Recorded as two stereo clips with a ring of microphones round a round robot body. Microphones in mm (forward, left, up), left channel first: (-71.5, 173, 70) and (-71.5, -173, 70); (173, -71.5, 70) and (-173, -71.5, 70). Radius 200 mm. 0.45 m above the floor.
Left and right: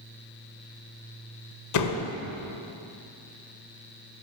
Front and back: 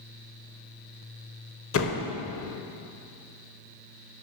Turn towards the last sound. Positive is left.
turn(degrees=50)